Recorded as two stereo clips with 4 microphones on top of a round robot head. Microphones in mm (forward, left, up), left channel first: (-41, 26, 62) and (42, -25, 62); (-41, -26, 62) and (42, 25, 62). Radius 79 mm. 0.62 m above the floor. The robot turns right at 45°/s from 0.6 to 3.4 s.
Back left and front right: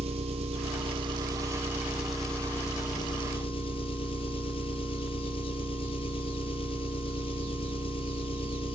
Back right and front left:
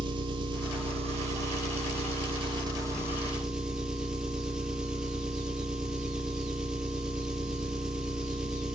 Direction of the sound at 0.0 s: 10° right.